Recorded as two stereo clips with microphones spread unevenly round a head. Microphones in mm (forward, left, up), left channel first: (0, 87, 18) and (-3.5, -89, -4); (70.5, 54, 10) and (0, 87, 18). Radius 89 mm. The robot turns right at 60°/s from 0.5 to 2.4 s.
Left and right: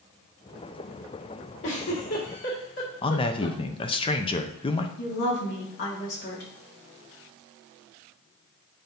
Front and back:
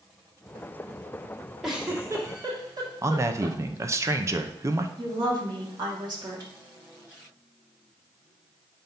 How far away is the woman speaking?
About 2.5 m.